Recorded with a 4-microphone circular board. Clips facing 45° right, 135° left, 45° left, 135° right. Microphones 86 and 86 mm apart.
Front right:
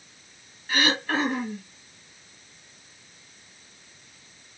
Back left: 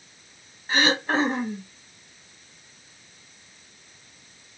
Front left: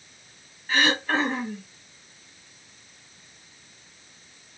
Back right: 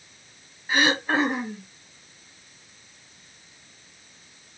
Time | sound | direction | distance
0.7 | throat clearing | 165° left | 0.6 m